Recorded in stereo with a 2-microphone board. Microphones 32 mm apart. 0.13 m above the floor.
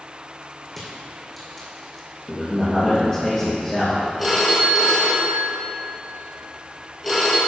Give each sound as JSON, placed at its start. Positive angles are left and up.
{"t": 0.7, "sound": "crushing", "side_deg": 0, "distance_m": 2.5}
{"t": 2.3, "sound": "a man speaking", "side_deg": 25, "distance_m": 2.5}
{"t": 4.2, "sound": "a phone ringing", "side_deg": 5, "distance_m": 2.0}